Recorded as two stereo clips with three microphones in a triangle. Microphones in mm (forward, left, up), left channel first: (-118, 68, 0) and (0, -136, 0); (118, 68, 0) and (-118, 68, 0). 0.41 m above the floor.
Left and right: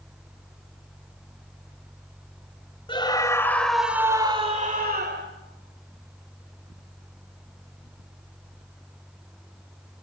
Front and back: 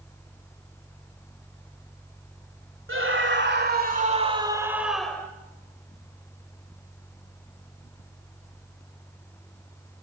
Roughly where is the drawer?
I don't hear a drawer.